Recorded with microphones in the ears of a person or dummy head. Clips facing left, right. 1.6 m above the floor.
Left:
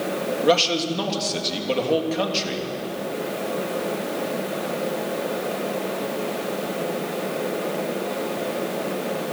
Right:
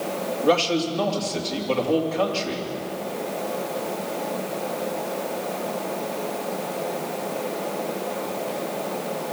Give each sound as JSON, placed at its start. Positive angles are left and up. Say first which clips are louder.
{"t": 0.4, "sound": "a man speaking", "louder": "even", "side_deg": 20, "distance_m": 3.0}